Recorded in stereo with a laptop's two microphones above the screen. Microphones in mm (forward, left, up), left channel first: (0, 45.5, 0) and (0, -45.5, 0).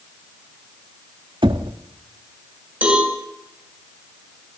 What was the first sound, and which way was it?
Knocking, 60° right (ahead or behind).